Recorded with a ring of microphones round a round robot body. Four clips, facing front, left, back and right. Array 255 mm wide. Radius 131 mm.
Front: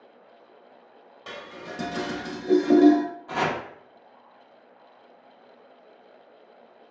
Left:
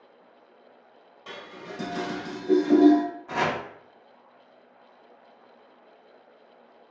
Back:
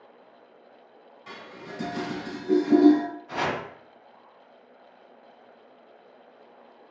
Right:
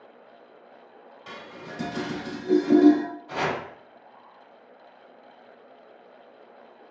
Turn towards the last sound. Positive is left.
turn(degrees=45)